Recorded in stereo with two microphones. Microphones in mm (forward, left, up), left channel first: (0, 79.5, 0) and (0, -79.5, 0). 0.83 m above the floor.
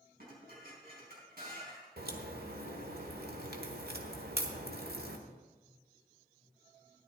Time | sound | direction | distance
0.2 | dishes clattering | 70° right (ahead or behind) | 4.5 m
2.0 | a crack | 75° right (ahead or behind) | 1.4 m